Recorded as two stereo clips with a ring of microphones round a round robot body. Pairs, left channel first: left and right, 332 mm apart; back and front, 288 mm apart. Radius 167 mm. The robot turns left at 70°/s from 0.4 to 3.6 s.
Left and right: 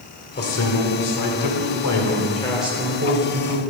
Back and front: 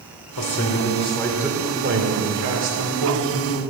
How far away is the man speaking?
About 2.5 m.